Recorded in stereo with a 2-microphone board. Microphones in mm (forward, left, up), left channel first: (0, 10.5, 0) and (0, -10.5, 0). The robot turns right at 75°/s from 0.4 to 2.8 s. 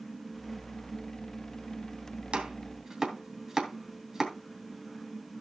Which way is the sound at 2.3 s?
55° right (ahead or behind).